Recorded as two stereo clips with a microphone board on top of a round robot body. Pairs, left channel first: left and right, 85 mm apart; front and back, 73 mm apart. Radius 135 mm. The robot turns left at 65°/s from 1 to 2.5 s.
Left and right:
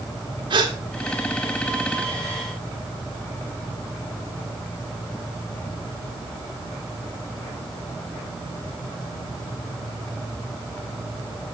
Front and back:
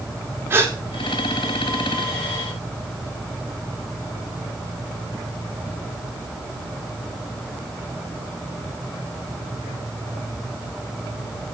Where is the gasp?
120° right, 1.5 m.